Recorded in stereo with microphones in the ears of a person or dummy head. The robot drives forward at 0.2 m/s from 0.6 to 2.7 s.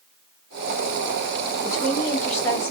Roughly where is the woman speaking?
Centre.